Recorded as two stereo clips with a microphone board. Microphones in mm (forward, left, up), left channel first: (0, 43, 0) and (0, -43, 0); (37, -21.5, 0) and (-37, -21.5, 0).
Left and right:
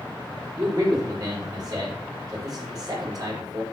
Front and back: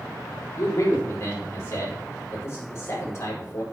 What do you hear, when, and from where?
0.6 s a man speaking: 50° right, 4.5 m